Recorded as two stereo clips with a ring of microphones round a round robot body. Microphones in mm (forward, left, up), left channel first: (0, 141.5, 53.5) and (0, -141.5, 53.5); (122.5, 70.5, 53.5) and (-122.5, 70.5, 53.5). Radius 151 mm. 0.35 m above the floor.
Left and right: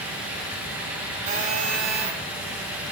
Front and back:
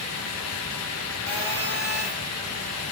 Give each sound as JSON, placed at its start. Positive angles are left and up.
{"t": 1.3, "sound": "a phone buzzing", "azimuth_deg": -80, "distance_m": 2.5}